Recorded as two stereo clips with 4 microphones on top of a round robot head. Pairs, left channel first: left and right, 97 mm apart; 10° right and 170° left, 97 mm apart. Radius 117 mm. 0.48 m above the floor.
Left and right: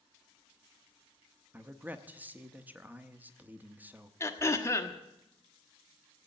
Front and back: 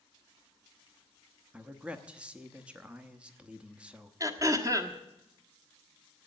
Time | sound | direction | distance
1.5 | a man speaking | 130° right | 1.1 m
4.2 | throat clearing | 135° left | 1.6 m